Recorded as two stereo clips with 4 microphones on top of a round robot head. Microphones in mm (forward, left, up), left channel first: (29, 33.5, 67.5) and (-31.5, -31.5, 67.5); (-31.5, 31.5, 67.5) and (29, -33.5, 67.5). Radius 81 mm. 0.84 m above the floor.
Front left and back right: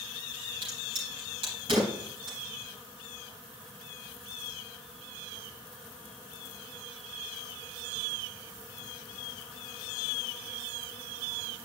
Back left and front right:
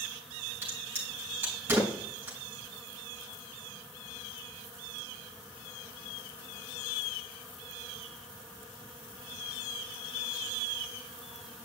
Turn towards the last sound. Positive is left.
turn(degrees=-110)